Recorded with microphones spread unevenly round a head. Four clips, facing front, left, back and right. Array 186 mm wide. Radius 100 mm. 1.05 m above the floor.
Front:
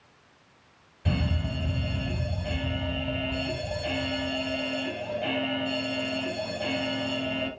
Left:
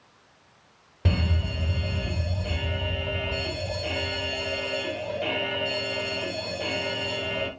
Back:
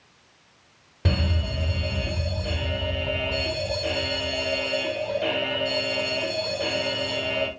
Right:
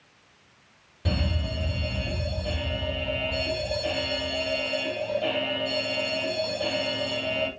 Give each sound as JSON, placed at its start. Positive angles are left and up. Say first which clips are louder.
{"t": 1.1, "sound": "an alarm", "louder": "left 1 dB, back 2 dB", "azimuth_deg": 150, "distance_m": 5.0}